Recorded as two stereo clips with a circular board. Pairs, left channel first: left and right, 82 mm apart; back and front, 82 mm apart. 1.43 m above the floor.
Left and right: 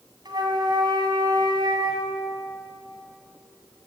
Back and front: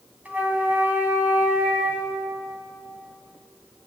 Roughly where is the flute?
Right.